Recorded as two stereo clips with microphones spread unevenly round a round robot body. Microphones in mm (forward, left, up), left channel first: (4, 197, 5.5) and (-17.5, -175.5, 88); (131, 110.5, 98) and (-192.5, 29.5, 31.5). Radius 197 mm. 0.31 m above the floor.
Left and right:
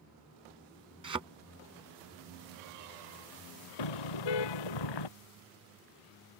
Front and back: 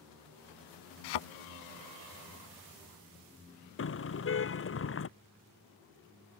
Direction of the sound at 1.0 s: 15° right.